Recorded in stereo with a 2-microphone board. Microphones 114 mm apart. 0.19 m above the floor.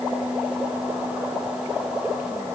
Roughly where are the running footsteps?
I don't hear running footsteps.